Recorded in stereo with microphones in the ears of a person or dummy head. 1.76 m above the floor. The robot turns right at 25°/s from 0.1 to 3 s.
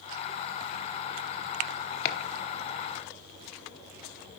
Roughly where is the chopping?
Left.